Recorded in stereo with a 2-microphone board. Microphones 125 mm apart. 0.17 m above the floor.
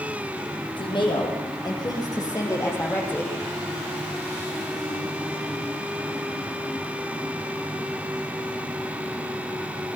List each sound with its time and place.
0.8 s a woman speaking: 40° left (ahead or behind), 7 m; by 3.3 s 15° left (ahead or behind), 6 m